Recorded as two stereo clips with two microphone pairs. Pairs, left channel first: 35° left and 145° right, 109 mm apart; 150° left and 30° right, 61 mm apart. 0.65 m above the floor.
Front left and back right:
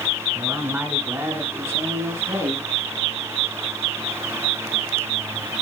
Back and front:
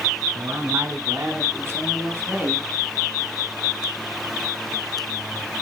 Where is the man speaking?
70° right, 6.5 m; by 2.7 s 85° right, 7 m.